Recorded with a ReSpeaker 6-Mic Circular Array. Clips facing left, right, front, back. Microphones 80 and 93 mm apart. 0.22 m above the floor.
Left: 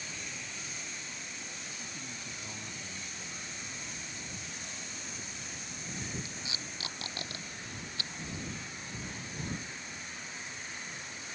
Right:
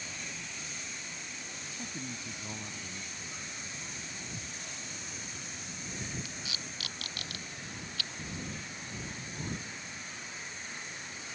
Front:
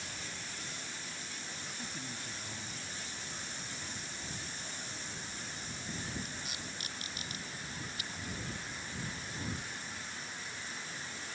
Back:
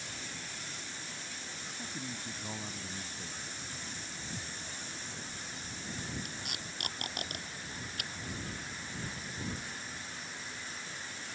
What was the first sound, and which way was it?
A man speaking, 105° right.